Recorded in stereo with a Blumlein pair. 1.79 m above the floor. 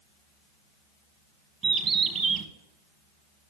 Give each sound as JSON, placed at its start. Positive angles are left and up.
{"t": 1.6, "sound": "a bird", "azimuth_deg": -25, "distance_m": 1.1}